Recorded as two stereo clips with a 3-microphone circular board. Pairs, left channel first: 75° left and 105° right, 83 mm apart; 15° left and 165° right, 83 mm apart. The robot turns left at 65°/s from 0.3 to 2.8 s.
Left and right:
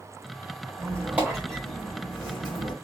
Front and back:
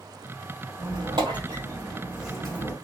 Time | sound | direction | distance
0.8 | a squeak | 150° right | 1.4 m